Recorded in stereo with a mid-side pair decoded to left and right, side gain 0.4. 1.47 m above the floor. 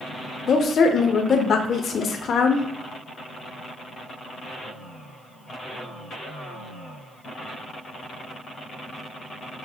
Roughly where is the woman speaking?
Ahead left.